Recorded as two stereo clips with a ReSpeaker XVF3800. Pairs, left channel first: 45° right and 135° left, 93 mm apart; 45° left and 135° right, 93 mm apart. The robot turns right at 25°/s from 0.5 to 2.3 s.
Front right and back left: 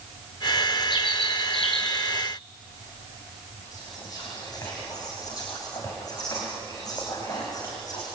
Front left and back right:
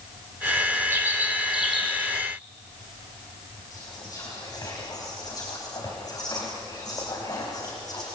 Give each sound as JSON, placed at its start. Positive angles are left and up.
{"t": 0.9, "sound": "a bird", "azimuth_deg": -70, "distance_m": 4.5}
{"t": 3.7, "sound": "whispering", "azimuth_deg": 0, "distance_m": 4.5}